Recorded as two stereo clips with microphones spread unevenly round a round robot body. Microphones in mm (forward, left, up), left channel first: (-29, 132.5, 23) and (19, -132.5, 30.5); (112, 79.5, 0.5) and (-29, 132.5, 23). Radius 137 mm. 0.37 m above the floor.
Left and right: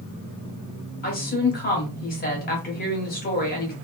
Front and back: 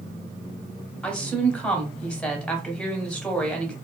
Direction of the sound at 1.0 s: 55° left.